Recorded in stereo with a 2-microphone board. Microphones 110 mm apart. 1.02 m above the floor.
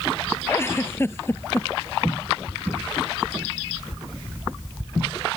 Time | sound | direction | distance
0.5 | a giggle | 25° left (ahead or behind) | ?